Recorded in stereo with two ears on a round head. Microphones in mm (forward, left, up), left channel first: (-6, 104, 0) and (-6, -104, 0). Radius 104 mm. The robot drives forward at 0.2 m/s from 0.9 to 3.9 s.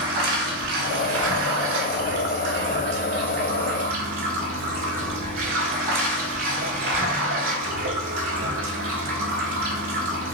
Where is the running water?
60° right (ahead or behind), 0.8 m; by 10.3 s 45° right (ahead or behind), 1.0 m.